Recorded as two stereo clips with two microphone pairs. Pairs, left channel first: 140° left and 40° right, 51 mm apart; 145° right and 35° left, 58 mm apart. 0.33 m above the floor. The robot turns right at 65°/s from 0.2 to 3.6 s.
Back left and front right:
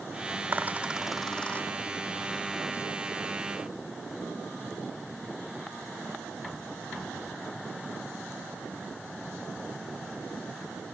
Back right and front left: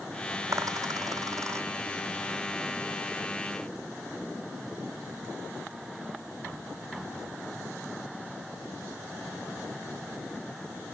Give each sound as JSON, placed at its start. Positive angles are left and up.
{"t": 0.5, "sound": "a dropped coin", "azimuth_deg": 5}